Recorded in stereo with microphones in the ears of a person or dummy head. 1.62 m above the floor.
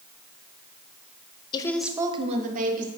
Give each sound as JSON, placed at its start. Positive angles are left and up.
{"t": 1.5, "sound": "a woman speaking", "side_deg": 25, "distance_m": 0.6}